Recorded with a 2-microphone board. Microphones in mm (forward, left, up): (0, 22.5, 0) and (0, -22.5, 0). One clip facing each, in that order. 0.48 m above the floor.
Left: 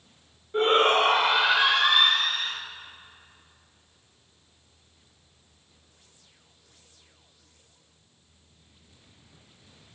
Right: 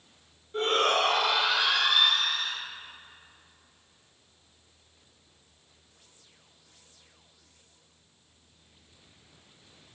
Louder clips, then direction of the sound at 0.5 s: Left 5 dB; 25° left (ahead or behind).